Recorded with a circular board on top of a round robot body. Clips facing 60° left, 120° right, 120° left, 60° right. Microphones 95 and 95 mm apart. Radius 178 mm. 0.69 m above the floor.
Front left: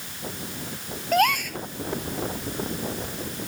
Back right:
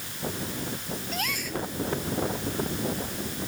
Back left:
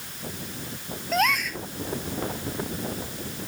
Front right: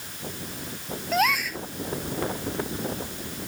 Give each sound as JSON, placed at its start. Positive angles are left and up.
{"t": 1.1, "sound": "a gasp", "azimuth_deg": 25}